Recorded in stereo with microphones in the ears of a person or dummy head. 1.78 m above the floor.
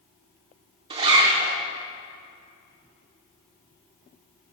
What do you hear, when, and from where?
0.9 s a zipper: 35° right (ahead or behind), 1.5 m